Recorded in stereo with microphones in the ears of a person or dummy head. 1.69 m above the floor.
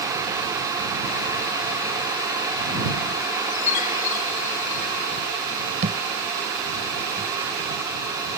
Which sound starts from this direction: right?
A thud, at 5.8 s.